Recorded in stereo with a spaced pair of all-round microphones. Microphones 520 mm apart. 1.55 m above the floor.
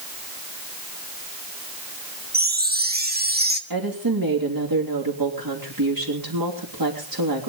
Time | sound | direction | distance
2.3 | a chime | 20° right (ahead or behind) | 1.5 m
3.7 | a woman speaking | 40° right (ahead or behind) | 3 m